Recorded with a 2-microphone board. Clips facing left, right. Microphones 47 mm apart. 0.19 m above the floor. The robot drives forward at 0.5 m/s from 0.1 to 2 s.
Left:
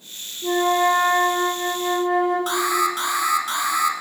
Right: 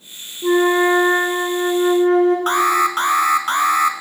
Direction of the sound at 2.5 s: 45° right (ahead or behind).